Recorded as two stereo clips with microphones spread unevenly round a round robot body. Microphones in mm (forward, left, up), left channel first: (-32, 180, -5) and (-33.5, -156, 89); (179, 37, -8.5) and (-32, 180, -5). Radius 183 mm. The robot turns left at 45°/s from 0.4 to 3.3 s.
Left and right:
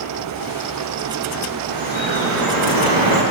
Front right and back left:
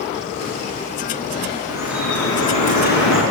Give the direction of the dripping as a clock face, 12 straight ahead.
1 o'clock.